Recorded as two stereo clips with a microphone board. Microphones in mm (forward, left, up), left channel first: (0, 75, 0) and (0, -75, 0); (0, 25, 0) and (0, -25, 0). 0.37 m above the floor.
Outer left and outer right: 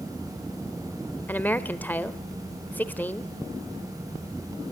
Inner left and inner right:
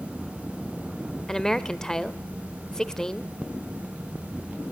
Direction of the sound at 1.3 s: 10° left (ahead or behind).